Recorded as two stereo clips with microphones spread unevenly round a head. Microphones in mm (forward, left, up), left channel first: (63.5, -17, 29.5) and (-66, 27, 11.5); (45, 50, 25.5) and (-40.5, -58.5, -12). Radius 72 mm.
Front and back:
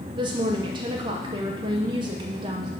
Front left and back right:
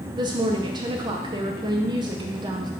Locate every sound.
0.1 s a woman speaking: 160° right, 0.7 m